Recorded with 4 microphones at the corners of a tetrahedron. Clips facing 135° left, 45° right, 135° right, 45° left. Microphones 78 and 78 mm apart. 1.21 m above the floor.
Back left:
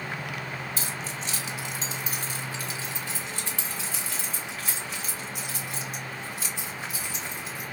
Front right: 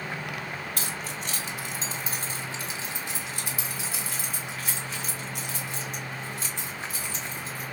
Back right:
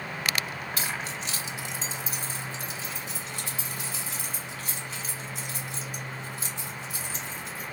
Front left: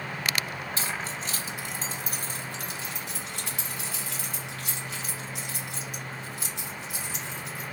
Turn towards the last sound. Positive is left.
turn(degrees=60)